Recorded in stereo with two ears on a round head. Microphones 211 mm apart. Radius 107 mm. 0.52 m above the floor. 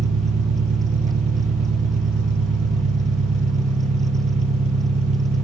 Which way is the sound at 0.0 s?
30° right (ahead or behind).